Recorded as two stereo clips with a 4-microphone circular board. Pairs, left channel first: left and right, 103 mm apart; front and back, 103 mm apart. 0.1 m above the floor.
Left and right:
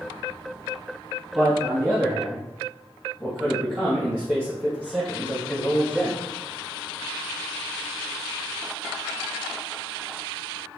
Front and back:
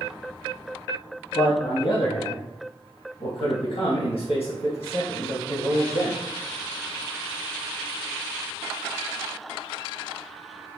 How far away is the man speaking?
About 1.8 m.